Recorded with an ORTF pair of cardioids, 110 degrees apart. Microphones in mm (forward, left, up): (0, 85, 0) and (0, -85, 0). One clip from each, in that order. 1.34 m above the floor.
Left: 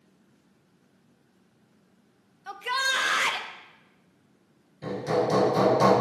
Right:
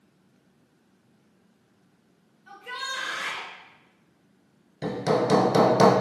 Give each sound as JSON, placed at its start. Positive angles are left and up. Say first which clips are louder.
{"t": 2.5, "sound": "a shout", "louder": "left 7 dB", "azimuth_deg": 60, "distance_m": 0.5}
{"t": 4.8, "sound": "hammering", "louder": "right 2 dB", "azimuth_deg": -55, "distance_m": 0.8}